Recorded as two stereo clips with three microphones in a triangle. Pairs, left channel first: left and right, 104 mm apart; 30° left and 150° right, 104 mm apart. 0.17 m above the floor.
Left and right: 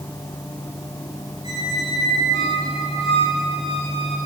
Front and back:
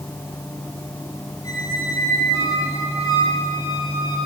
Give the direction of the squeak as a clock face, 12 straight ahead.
9 o'clock.